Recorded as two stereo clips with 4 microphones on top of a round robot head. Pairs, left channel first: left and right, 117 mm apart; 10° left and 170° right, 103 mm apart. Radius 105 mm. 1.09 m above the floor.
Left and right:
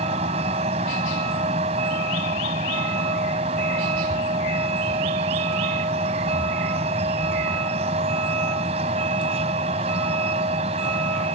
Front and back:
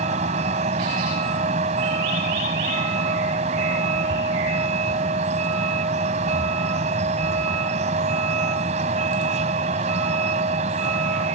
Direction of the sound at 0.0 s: 140° right.